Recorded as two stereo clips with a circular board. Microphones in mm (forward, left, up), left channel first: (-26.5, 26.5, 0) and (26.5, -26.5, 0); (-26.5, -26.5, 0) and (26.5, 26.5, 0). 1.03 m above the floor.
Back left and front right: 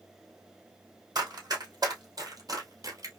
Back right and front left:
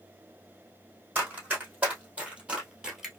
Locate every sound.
1.1 s running footsteps: 20° right, 3 m; by 3.2 s 40° right, 1.3 m